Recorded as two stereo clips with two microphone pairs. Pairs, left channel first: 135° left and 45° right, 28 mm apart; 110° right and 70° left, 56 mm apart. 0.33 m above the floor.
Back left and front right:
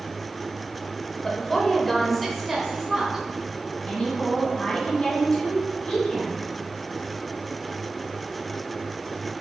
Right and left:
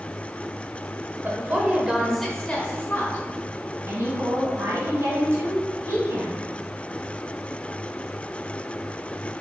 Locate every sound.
1.2 s a woman speaking: 75° left, 1.1 m; by 3.2 s 115° right, 1.2 m
3.9 s a woman speaking: 80° left, 2 m